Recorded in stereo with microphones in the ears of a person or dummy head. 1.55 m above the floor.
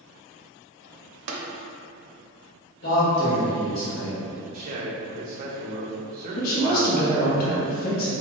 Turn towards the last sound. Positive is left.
turn(degrees=55)  # may be behind; listen again after turning